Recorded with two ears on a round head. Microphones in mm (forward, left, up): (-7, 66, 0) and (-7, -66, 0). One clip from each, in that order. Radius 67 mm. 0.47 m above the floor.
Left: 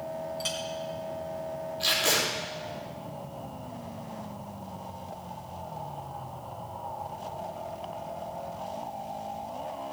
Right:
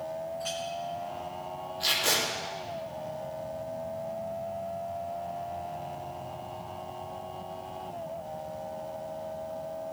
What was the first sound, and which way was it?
A clink, 80° left.